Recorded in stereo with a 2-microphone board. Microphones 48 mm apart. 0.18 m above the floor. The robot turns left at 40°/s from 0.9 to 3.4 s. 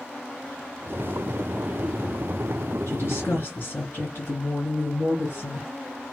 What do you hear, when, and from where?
2.9 s a woman speaking: 55° left (ahead or behind), 2.5 m; by 5.7 s 45° left (ahead or behind), 2.5 m